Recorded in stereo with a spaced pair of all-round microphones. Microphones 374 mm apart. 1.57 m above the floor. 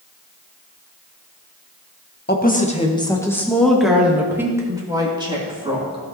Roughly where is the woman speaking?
Left.